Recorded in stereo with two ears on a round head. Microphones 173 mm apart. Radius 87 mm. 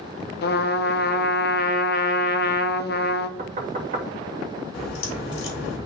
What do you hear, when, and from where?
0.4 s a trumpet: 60° left (ahead or behind), 0.8 m
3.4 s knocking: 45° right (ahead or behind), 1.8 m
4.7 s a crack: 85° left, 3.5 m